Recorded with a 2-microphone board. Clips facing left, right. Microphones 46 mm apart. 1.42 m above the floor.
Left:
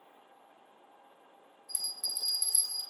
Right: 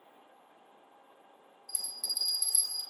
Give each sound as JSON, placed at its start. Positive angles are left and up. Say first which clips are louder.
{"t": 1.7, "sound": "a bell", "louder": "even", "side_deg": 40, "distance_m": 0.6}